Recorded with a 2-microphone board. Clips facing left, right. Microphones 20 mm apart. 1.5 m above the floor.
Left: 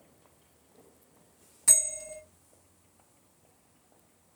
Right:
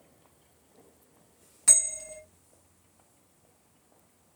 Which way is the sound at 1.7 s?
25° right (ahead or behind).